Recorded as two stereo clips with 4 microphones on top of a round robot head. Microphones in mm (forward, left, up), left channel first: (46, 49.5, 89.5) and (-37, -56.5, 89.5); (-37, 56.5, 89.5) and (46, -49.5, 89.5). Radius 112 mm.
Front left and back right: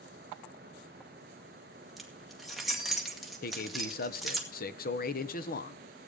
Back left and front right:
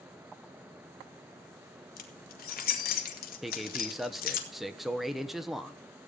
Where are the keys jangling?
140° left, 1.9 m.